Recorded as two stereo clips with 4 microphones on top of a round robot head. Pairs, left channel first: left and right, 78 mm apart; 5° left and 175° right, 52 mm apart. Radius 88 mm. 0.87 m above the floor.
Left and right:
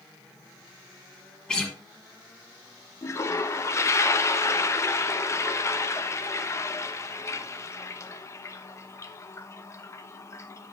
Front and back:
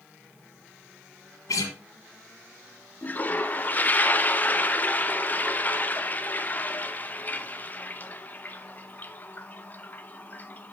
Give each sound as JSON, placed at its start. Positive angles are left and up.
{"t": 1.5, "sound": "a guitar", "azimuth_deg": 10, "distance_m": 1.5}
{"t": 3.0, "sound": "a toilet flushing", "azimuth_deg": 50, "distance_m": 1.0}